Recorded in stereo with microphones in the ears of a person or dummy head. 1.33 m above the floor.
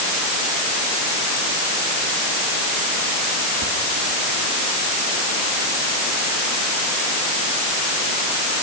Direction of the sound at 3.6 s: 70° right (ahead or behind).